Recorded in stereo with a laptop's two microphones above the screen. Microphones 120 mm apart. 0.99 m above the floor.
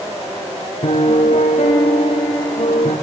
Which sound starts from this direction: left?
A piano, at 0.8 s.